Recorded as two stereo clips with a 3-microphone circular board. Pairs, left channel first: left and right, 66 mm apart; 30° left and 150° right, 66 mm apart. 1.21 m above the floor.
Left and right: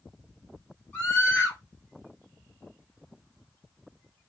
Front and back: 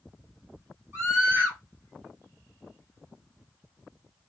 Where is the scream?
155° left, 1.4 m.